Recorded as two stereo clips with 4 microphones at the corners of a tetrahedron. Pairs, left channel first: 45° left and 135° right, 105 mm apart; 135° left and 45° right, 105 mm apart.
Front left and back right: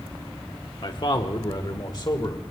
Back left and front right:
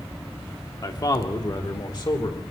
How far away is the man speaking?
About 1.3 m.